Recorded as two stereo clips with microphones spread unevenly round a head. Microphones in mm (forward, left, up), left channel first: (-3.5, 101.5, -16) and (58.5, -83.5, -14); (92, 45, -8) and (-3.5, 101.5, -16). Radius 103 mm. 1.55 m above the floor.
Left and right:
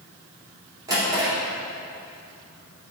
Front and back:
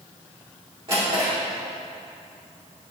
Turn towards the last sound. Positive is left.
turn(degrees=-145)